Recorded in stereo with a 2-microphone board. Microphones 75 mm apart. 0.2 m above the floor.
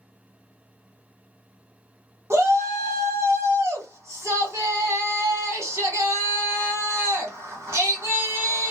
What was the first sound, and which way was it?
A shout, 40° right (ahead or behind).